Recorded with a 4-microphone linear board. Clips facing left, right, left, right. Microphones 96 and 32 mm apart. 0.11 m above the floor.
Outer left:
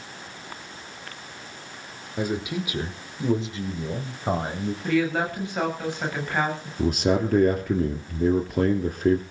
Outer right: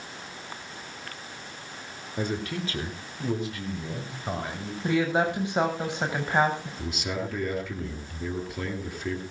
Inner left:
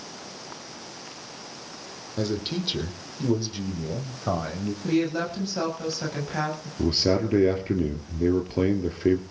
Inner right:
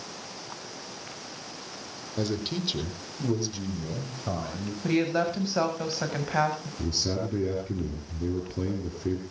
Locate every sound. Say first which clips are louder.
2.2 s a man speaking: outer left 3 dB, inner left 2 dB; 5° left (ahead or behind), 3.5 m; by 4.7 s 30° left (ahead or behind), 6 m
4.8 s a woman speaking: even, even; 20° right (ahead or behind), 7.5 m
6.8 s a man speaking: outer left 15 dB, inner left 9 dB; 50° left (ahead or behind), 2.5 m